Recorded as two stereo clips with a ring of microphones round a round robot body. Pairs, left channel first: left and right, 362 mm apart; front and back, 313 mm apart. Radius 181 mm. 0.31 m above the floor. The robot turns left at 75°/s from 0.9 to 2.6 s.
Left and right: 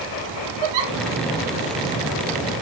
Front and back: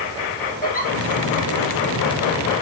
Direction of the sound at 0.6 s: 70° right.